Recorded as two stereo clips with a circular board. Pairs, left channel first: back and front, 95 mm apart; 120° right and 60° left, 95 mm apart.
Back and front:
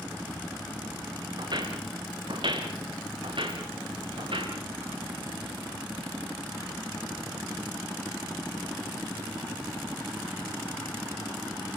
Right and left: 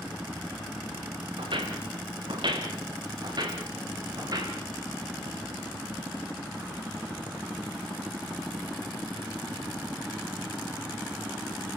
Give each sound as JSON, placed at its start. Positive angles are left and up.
{"t": 1.4, "sound": "footsteps", "azimuth_deg": 35, "distance_m": 4.5}